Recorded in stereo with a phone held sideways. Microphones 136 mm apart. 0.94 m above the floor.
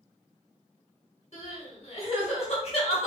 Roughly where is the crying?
Left.